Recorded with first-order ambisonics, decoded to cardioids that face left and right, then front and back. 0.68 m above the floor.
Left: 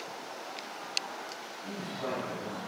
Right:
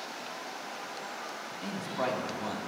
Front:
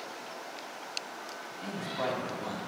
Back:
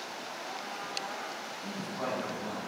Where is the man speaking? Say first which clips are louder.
Right 5 dB, front 4 dB; 75° right, 1.7 m.